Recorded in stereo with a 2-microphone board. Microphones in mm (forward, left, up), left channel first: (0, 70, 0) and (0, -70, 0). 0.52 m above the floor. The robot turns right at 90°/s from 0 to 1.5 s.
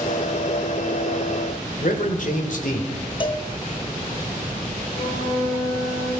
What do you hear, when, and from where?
1.8 s a man speaking: 60° left (ahead or behind), 1.9 m
3.2 s a cowbell: 35° left (ahead or behind), 0.7 m
4.9 s a flute: 80° left, 6.5 m